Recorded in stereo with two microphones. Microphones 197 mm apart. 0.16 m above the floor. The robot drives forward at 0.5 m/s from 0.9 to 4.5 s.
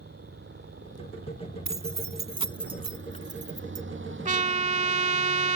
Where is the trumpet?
40° right (ahead or behind); by 5.6 s 35° right (ahead or behind).